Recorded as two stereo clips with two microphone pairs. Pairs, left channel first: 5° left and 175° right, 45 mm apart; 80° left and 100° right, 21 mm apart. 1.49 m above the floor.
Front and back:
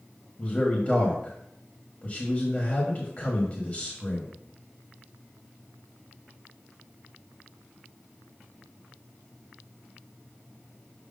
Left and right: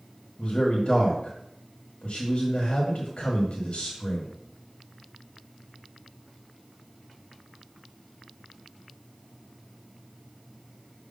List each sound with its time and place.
0.4 s a man speaking: 65° left, 1.5 m